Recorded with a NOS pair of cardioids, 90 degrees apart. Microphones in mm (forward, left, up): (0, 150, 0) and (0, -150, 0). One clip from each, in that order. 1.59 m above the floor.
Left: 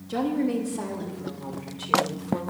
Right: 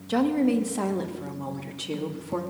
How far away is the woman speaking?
About 2.5 m.